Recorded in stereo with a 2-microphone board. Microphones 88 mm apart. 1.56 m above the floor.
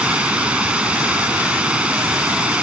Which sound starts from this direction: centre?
Running water, at 0.0 s.